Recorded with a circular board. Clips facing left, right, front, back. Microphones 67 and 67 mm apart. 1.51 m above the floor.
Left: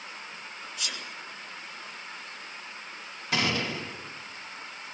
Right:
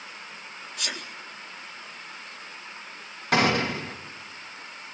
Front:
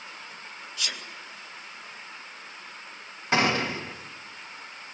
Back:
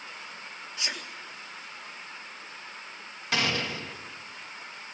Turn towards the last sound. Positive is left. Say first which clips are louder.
# right 6 dB, front 5 dB
turn(degrees=-60)